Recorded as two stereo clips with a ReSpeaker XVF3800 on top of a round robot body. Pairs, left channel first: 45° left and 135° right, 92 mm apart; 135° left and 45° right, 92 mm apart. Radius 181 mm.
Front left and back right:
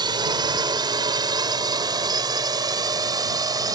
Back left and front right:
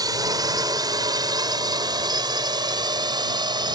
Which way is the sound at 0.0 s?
95° right.